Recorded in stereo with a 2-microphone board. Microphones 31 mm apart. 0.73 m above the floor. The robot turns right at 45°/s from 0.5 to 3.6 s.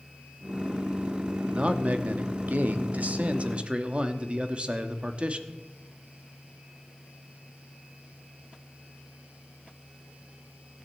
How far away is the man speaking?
About 1.0 m.